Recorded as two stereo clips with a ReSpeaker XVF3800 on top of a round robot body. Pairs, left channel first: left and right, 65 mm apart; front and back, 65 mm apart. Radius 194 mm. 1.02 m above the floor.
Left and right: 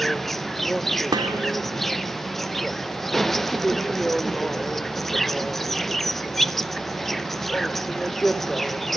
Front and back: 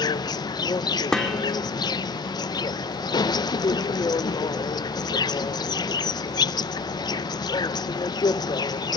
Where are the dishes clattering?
80° right, 2.5 m.